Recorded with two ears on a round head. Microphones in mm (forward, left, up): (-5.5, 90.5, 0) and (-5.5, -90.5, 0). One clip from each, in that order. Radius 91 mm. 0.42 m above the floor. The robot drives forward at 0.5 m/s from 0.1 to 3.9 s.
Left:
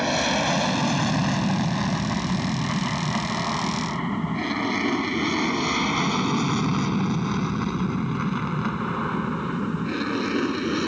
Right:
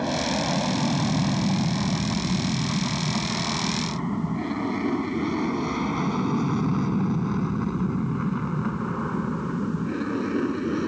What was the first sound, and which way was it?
An aircraft, 60° left (ahead or behind).